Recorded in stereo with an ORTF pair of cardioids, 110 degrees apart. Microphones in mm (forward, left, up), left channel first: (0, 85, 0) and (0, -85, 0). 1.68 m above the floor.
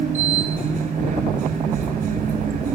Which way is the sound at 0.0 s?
55° right.